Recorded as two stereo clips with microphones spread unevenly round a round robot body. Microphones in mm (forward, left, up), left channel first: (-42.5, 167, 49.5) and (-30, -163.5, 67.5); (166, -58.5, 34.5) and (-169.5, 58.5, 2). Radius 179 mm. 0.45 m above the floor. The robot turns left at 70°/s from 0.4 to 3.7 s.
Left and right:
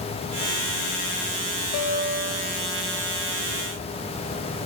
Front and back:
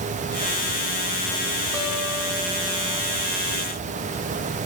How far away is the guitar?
About 1.7 m.